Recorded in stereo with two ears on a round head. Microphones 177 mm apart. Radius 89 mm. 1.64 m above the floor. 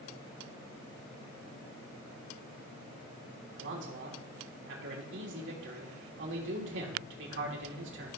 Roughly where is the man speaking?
Right.